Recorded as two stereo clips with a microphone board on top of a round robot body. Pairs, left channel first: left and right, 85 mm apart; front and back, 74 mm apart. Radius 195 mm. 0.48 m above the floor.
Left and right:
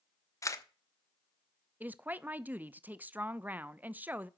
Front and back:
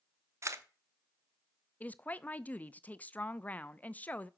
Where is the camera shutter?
135° left, 1.2 m.